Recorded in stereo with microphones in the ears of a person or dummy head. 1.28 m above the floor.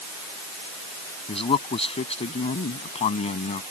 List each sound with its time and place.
1.3 s a man speaking: 30° left (ahead or behind); by 3.6 s 35° left (ahead or behind)